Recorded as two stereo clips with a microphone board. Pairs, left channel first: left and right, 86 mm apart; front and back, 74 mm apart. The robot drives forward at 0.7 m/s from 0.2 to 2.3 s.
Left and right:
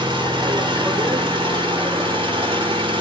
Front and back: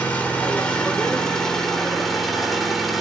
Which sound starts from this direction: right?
An engine running, at 0.0 s.